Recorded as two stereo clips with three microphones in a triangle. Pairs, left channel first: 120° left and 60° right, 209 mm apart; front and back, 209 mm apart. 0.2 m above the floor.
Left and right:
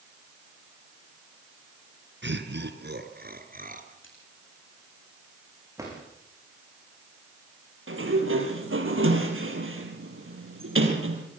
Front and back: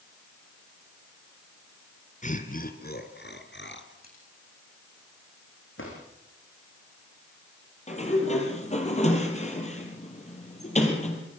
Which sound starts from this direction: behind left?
A splash, at 4.0 s.